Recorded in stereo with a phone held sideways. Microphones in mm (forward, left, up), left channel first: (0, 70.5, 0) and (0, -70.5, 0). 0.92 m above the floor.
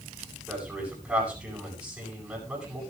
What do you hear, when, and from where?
0.5 s a man speaking: 10° right (ahead or behind), 8.5 m